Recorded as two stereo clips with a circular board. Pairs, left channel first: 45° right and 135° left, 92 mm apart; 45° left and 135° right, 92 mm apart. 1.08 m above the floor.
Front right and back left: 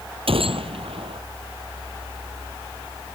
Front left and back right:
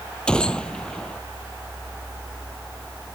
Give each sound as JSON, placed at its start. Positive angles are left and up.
{"t": 0.3, "sound": "a gunshot", "azimuth_deg": 125}